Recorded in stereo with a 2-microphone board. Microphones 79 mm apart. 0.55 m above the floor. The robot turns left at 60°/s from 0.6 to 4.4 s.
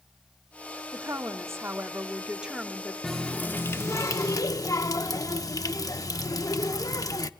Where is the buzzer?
No buzzer in this recording.